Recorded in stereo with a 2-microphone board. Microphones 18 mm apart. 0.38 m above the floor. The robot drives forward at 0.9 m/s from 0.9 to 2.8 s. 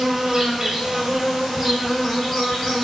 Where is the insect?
40° right (ahead or behind), 0.7 m; by 2.8 s 10° right (ahead or behind), 2.5 m.